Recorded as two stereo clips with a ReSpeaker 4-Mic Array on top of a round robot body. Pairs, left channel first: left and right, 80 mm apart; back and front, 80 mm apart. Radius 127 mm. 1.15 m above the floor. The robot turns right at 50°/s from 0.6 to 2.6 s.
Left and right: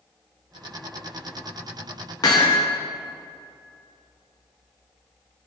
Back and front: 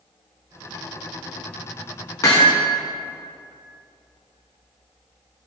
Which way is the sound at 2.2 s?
130° left.